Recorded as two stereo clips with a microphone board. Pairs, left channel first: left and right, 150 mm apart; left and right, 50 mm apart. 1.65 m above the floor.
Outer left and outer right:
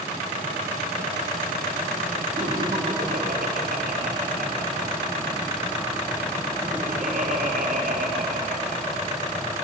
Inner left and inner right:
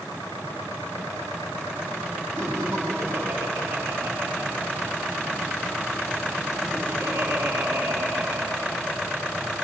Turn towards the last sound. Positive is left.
turn(degrees=-70)  # may be behind; listen again after turning